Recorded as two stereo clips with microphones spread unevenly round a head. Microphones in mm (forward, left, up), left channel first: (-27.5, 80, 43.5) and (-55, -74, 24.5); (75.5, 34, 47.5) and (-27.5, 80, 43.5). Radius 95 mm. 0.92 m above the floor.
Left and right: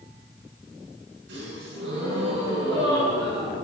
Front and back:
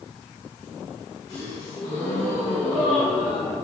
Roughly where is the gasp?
Right.